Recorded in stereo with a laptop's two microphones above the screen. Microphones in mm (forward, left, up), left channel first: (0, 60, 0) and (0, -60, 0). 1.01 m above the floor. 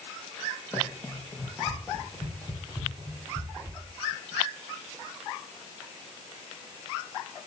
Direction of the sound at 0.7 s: 20° left (ahead or behind).